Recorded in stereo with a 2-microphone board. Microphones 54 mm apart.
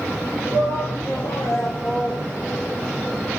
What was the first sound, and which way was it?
A shout, 65° left (ahead or behind).